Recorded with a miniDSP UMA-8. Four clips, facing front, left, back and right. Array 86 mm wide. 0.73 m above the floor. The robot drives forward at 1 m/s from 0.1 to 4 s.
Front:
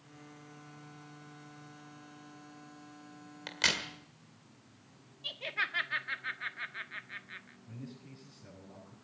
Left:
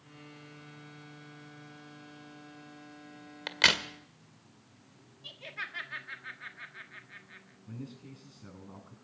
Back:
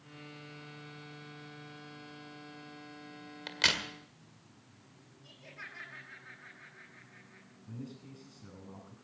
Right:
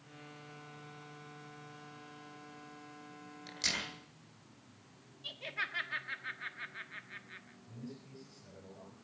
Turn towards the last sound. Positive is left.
turn(degrees=110)